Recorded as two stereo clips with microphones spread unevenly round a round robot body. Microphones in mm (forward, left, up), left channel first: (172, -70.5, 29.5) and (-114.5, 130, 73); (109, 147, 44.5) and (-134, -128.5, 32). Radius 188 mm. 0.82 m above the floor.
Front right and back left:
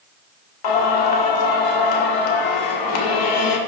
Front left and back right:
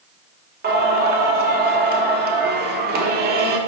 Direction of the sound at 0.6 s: 65° right.